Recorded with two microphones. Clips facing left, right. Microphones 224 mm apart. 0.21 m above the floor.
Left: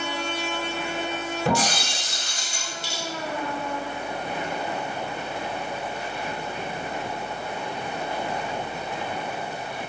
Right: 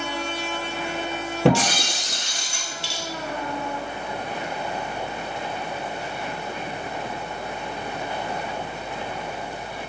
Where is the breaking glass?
80° right, 1.0 m.